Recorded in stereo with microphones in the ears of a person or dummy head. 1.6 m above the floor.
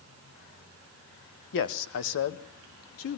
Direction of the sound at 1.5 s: 60° left (ahead or behind).